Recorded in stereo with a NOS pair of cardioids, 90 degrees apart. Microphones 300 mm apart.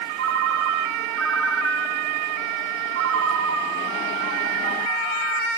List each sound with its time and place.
0.2 s a ringtone: 40° right, 3 m